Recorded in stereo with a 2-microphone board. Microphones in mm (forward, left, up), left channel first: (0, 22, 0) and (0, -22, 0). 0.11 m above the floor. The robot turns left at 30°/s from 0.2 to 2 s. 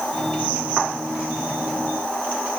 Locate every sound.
Only background noise.